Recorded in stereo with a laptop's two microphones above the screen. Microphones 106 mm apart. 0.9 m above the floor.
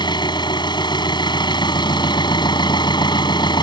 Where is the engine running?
45° left (ahead or behind).